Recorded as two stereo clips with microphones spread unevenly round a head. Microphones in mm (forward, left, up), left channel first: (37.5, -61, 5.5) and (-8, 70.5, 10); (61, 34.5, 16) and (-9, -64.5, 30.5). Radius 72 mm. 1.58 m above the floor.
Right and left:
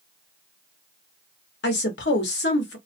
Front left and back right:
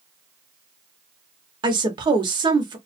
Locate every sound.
1.6 s a woman speaking: 75° right, 0.9 m